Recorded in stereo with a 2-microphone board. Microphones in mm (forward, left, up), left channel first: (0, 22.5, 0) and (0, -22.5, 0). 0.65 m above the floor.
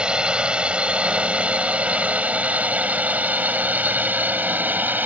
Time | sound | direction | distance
0.0 | a drone | 20° right (ahead or behind) | ?